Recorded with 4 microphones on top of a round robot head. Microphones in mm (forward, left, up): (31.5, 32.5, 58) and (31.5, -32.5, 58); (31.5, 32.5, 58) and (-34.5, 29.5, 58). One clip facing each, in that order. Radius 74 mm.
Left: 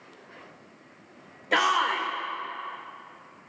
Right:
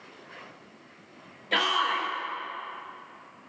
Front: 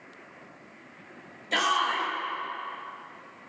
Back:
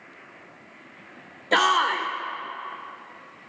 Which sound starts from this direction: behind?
A shout, at 1.5 s.